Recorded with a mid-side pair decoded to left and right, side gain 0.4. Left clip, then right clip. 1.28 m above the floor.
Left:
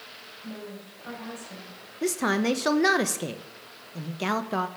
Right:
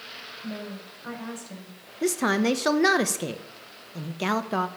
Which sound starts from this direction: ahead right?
A woman speaking, at 0.4 s.